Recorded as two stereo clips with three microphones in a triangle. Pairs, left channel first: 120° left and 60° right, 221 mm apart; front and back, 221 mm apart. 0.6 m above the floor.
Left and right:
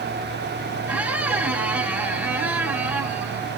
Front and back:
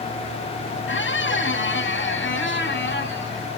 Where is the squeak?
20° left, 1.3 m.